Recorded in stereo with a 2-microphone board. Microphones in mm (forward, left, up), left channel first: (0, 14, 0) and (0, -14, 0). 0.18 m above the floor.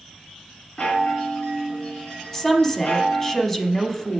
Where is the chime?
45° left (ahead or behind), 2 m.